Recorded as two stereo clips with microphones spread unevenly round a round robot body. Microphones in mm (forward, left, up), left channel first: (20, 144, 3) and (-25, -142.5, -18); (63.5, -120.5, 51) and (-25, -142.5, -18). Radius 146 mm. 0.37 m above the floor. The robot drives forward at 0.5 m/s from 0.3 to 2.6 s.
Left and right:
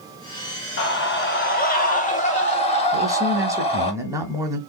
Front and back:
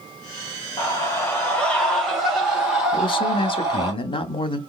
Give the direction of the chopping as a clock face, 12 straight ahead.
No chopping in this recording.